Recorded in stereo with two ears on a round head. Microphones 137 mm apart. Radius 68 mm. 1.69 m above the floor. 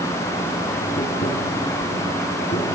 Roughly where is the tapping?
Left.